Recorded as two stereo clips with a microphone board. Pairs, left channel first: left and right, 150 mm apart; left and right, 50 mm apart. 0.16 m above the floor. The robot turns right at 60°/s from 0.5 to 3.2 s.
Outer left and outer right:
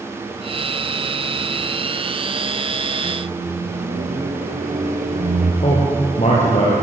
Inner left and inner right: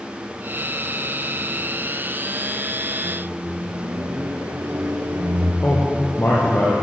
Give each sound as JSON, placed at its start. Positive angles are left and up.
{"t": 3.0, "sound": "a microwave", "side_deg": -65, "distance_m": 2.5}
{"t": 5.6, "sound": "a man speaking", "side_deg": 50, "distance_m": 3.5}